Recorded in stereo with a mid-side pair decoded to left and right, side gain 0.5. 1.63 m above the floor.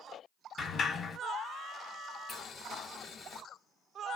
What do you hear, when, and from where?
0.6 s a sliding door: 45° left, 1.1 m
2.3 s boiling: 50° left, 1.0 m